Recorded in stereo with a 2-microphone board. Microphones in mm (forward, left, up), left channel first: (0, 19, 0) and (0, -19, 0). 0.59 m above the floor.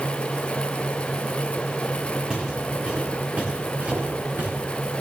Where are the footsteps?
15° right (ahead or behind), 3.5 m; by 4.5 s 65° right (ahead or behind), 4.5 m.